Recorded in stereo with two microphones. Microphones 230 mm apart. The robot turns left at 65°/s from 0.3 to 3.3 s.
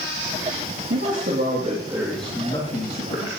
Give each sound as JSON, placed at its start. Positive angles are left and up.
{"t": 0.9, "sound": "a man speaking", "azimuth_deg": -95, "distance_m": 2.0}